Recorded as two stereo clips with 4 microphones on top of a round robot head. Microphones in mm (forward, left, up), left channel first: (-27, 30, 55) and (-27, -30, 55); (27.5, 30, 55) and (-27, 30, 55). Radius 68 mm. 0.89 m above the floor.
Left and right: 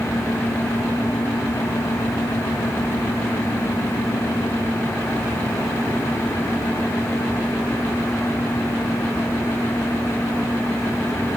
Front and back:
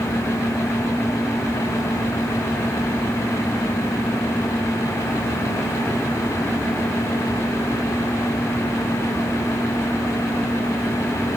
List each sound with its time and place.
Only background noise.